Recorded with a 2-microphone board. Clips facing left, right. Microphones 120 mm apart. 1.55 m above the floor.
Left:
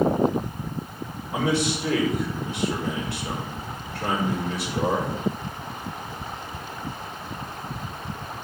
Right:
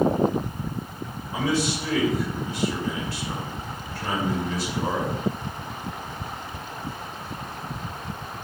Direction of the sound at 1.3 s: 70° left (ahead or behind).